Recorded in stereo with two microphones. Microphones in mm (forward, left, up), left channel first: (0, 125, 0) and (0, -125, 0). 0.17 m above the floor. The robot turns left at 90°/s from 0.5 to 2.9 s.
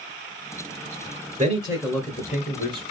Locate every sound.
1.4 s a man speaking: 130° right, 1.9 m; by 2.8 s 100° left, 1.9 m